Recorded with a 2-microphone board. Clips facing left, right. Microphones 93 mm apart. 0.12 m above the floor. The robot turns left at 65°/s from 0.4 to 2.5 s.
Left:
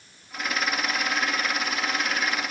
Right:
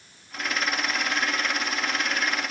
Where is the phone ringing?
No phone ringing in this recording.